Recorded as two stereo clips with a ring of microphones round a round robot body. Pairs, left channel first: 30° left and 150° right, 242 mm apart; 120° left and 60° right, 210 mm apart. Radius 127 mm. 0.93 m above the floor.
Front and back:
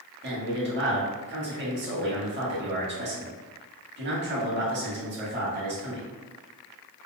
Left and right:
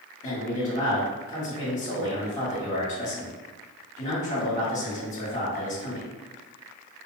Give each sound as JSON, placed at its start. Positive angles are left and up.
{"t": 0.2, "sound": "a man speaking", "azimuth_deg": 175, "distance_m": 1.2}